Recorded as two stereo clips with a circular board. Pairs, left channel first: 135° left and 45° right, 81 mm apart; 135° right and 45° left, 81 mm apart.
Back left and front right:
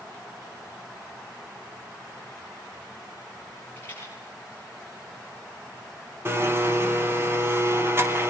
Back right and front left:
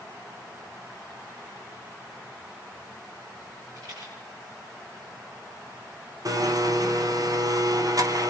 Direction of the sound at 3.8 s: 75° left.